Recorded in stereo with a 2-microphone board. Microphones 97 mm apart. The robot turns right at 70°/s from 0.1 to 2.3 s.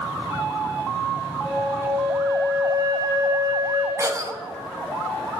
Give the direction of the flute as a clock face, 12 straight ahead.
12 o'clock.